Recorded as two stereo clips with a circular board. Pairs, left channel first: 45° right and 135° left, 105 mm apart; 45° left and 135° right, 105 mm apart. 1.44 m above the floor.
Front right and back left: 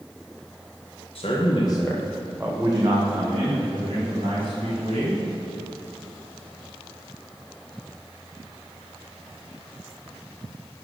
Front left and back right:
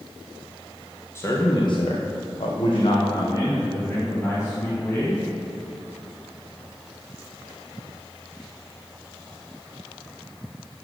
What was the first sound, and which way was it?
A man speaking, 20° right.